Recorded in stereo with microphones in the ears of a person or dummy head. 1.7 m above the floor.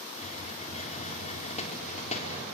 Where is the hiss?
35° left (ahead or behind), 4 m.